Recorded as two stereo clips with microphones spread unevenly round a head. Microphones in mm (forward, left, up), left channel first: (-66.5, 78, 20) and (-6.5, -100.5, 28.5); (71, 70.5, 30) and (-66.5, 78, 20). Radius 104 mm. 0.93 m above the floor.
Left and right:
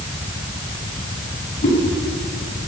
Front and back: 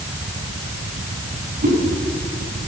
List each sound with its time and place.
1.6 s a whoosh: 160° left, 9.5 m